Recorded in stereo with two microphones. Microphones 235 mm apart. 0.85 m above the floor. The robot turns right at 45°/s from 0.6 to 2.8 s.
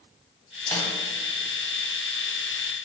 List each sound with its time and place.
0.7 s a snare drum: 10° left (ahead or behind), 0.7 m; by 0.9 s 15° left (ahead or behind), 0.7 m